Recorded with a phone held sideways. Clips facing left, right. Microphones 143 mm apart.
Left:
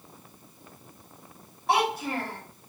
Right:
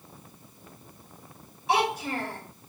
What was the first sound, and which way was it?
A child speaking, 60° left (ahead or behind).